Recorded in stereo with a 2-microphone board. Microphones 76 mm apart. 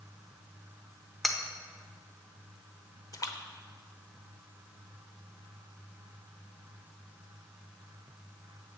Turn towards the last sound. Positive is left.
turn(degrees=50)  # may be behind; listen again after turning